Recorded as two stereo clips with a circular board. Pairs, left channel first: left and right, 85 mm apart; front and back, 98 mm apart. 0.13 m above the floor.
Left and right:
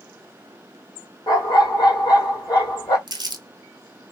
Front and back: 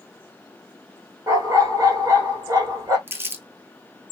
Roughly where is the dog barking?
Behind left.